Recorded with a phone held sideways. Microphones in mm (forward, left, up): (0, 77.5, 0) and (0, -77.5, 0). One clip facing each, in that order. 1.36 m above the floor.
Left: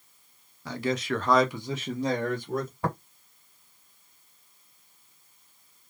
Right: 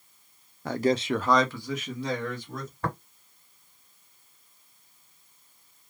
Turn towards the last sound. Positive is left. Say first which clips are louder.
# right 1 dB
turn(degrees=15)  # may be behind; listen again after turning